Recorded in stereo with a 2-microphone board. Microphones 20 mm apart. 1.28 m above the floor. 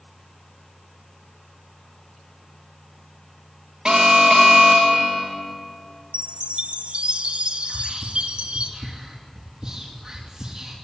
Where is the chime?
70° right (ahead or behind), 1.3 m.